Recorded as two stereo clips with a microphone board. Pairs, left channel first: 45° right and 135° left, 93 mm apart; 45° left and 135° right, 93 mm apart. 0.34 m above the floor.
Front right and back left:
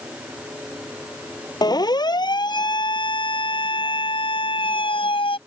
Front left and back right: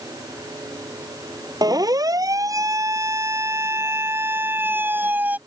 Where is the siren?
85° right; by 5.4 s 60° right.